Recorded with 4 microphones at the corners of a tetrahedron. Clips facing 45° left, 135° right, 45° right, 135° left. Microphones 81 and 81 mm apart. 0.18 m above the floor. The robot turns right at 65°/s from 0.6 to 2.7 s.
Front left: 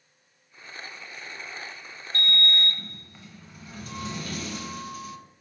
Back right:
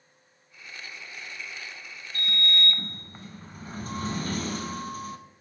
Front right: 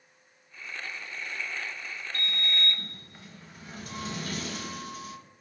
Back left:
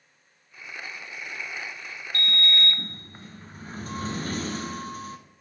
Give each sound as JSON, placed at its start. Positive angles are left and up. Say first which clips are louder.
{"t": 2.1, "sound": "a sliding door", "louder": "front left 2 dB, back left 6 dB", "azimuth_deg": 145, "distance_m": 0.6}